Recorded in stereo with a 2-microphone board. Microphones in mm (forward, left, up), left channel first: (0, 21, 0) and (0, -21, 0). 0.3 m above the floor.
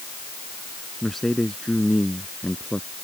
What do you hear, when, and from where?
1.0 s a man speaking: 5° left (ahead or behind); by 2.9 s 25° left (ahead or behind)